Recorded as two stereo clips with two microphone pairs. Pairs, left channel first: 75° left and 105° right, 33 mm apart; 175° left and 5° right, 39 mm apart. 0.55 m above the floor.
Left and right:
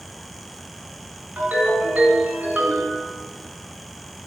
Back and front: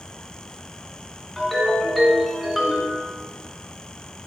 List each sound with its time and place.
1.4 s a ringtone: 95° right, 2 m